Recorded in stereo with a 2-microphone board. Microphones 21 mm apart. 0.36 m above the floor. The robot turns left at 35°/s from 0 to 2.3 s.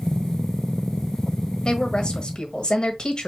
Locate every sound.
1.6 s a woman speaking: 45° left (ahead or behind), 1.4 m; by 3.3 s 50° left (ahead or behind), 1.4 m